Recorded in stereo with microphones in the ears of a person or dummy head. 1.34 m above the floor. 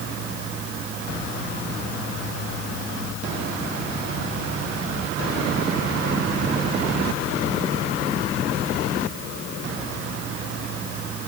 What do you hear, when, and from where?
Only background noise.